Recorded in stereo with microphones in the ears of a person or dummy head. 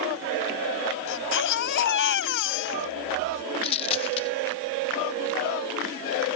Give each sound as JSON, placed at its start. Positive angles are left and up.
{"t": 1.1, "sound": "a baby crying", "side_deg": 55}
{"t": 3.6, "sound": "a dropped coin", "side_deg": 30}